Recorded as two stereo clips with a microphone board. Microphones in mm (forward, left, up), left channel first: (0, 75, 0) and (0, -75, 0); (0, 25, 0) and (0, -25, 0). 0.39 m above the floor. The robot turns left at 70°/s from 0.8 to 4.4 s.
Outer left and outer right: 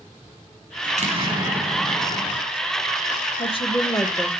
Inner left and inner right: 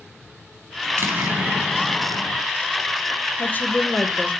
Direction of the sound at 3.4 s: 60° left.